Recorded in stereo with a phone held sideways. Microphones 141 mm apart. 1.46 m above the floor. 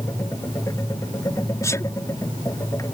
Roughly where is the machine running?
Left.